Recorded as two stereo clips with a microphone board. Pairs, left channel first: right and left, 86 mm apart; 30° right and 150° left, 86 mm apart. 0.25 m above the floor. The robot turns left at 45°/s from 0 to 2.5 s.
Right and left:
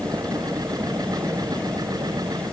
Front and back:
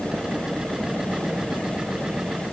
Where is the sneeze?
No sneeze in this recording.